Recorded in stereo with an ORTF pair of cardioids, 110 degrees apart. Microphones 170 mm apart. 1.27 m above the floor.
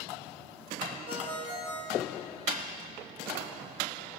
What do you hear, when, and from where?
1.1 s a ringtone: 45° right, 4.5 m